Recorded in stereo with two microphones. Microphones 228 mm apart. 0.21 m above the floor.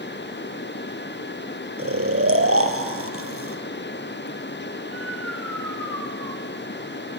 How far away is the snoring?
About 2.0 m.